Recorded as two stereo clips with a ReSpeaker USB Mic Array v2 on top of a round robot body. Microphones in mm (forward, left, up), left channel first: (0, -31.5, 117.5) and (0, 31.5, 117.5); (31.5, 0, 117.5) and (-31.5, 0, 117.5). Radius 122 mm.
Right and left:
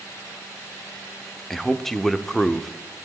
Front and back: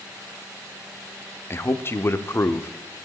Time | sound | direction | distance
1.5 | a man speaking | 10° right | 1.0 m